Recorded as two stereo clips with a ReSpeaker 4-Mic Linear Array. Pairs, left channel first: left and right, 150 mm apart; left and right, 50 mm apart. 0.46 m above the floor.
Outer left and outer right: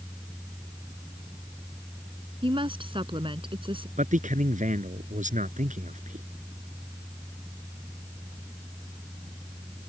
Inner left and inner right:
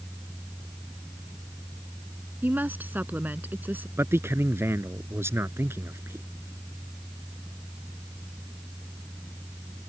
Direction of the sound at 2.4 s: 35° right (ahead or behind).